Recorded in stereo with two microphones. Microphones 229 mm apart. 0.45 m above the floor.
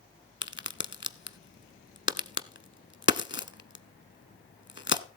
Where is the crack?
55° left (ahead or behind), 0.8 m.